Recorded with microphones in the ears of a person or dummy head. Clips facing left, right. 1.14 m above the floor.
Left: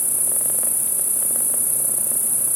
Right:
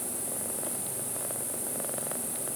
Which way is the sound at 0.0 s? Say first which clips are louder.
Left 1 dB; 85° left.